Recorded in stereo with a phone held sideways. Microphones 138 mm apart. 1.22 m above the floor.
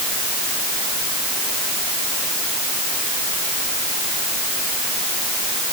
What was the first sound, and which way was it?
Only background noise.